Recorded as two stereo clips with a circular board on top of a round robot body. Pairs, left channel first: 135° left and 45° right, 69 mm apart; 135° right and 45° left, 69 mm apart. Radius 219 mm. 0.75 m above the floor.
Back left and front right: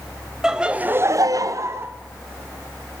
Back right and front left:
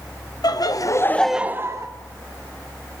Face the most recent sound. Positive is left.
turn(degrees=5)